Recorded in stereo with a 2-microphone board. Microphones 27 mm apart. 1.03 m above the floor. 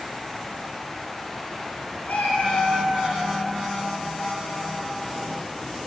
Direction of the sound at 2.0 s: 85° left.